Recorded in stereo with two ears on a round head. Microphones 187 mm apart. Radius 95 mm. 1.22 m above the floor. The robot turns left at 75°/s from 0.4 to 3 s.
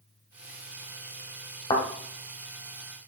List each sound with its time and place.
1.7 s a thud: 25° left (ahead or behind), 1.8 m; by 1.9 s 35° left (ahead or behind), 1.8 m